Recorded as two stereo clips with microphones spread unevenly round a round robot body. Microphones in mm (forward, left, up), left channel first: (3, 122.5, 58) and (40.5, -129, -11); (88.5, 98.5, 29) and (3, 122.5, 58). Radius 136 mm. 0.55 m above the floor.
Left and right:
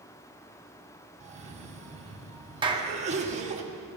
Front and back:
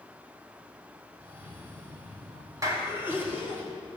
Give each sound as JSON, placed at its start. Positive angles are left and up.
{"t": 1.2, "sound": "a cough", "azimuth_deg": -115, "distance_m": 1.8}
{"t": 2.6, "sound": "a clap", "azimuth_deg": -130, "distance_m": 1.1}